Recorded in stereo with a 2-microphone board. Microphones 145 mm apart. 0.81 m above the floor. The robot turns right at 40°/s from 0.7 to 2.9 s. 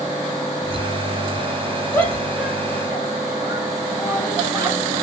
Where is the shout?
15° left (ahead or behind), 5.5 m; by 4.8 s 20° right (ahead or behind), 5.5 m.